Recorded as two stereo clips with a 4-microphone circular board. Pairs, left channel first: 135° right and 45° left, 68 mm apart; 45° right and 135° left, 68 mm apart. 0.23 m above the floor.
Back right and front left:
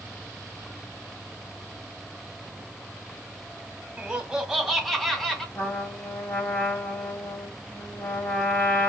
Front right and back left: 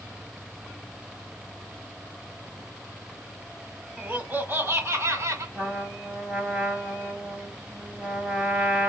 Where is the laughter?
95° left, 1.2 m; by 5.5 s 140° left, 1.6 m.